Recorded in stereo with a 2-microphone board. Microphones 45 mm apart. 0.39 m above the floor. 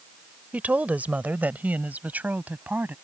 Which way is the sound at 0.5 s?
40° right (ahead or behind).